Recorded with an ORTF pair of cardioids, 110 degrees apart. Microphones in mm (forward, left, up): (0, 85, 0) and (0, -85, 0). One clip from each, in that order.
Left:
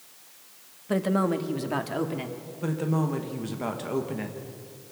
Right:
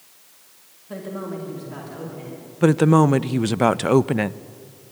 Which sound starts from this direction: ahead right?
A woman speaking, at 2.6 s.